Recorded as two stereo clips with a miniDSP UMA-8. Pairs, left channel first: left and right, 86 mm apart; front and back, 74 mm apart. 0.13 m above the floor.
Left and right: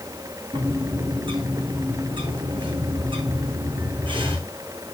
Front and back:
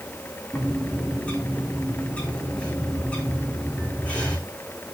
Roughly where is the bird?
Right.